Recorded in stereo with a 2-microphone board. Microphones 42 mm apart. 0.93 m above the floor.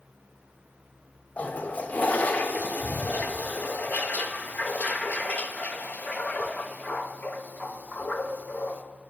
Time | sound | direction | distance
1.4 | a toilet flushing | 40° left (ahead or behind) | 0.6 m